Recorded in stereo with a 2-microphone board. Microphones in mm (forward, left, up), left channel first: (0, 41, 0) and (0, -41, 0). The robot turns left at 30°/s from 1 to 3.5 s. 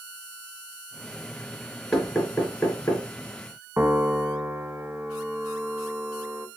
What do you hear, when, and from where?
1.9 s knocking: centre (ahead or behind), 2.5 m; by 3.0 s 30° left (ahead or behind), 2.5 m
3.8 s a piano: 30° right (ahead or behind), 0.6 m